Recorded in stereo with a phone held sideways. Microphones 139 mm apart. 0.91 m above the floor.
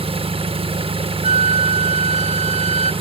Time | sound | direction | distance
0.0 | an engine running | 40° right (ahead or behind) | 0.8 m
1.2 | a flute | 55° right (ahead or behind) | 0.9 m